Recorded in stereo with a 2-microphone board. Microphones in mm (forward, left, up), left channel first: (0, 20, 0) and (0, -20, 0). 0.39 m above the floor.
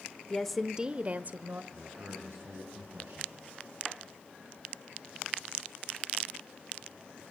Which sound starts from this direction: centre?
A woman speaking, at 0.3 s.